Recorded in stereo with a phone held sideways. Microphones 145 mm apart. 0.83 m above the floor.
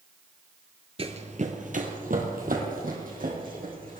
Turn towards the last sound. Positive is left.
turn(degrees=-65)  # may be behind; listen again after turning